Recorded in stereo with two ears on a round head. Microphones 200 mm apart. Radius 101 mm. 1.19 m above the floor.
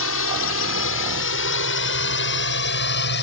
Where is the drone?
70° left (ahead or behind); by 3.2 s 55° left (ahead or behind).